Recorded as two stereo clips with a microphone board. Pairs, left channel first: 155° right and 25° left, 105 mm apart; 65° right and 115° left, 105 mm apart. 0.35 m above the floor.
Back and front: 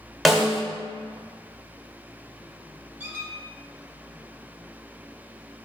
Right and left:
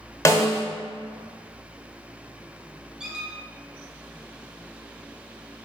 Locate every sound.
0.2 s a snare drum: 65° right, 0.7 m
3.0 s a squeak: 40° left, 0.7 m